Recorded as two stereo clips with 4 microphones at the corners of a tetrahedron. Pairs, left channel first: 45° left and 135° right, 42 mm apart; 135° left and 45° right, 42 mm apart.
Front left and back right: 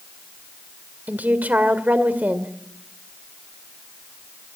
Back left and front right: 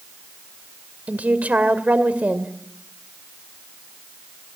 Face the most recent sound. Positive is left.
turn(degrees=-90)